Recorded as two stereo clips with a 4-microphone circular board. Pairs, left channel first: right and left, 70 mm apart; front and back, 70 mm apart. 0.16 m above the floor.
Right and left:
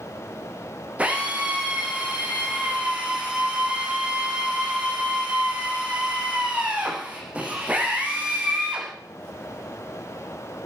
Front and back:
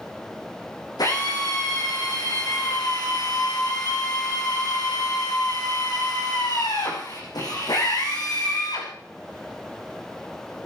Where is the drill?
20° left, 9 m.